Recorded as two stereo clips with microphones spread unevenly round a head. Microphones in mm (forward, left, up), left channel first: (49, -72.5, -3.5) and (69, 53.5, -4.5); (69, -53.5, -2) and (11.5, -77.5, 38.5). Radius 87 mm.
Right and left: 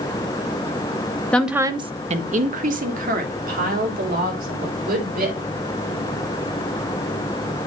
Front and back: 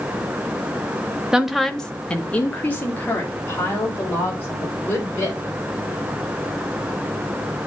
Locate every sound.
1.3 s a woman speaking: 30° right, 0.7 m; by 5.4 s 85° left, 5 m